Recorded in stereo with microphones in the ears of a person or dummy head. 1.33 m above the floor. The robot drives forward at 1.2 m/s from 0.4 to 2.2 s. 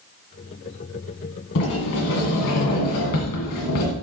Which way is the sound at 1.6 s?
50° left (ahead or behind).